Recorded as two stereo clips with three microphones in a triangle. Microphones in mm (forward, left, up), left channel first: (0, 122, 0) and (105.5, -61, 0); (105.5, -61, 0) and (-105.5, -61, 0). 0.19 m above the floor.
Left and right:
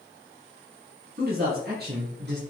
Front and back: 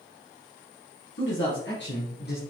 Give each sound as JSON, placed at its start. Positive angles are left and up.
{"t": 1.2, "sound": "a man speaking", "azimuth_deg": -20, "distance_m": 3.5}